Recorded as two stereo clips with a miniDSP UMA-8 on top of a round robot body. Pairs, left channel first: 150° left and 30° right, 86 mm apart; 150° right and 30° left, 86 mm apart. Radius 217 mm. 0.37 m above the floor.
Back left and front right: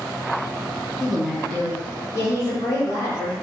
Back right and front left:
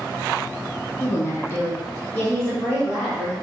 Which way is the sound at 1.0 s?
115° right.